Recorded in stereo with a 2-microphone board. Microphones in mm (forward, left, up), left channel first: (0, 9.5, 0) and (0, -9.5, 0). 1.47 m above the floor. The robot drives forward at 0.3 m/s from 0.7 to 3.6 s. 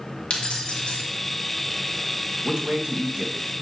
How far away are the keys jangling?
About 2 m.